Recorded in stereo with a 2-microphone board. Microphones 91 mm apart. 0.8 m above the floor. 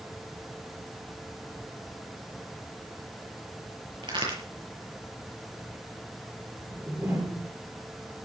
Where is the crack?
60° right (ahead or behind), 7.5 m.